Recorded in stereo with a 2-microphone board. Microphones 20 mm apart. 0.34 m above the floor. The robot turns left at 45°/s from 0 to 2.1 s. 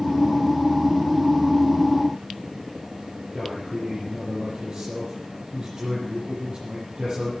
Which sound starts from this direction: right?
A man speaking, at 3.3 s.